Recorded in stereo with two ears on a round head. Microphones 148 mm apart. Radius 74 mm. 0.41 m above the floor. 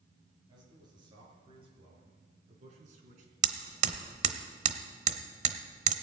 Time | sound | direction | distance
0.5 | a man speaking | 25° right (ahead or behind) | 6 m
3.4 | hammering | 45° right (ahead or behind) | 0.9 m